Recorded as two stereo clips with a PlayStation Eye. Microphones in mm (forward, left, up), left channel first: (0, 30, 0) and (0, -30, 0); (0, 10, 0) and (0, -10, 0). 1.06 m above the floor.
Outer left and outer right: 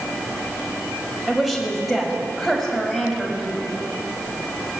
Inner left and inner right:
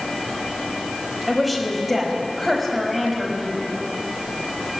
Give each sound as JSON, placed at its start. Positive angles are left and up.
{"t": 1.3, "sound": "a woman speaking", "side_deg": 0, "distance_m": 5.0}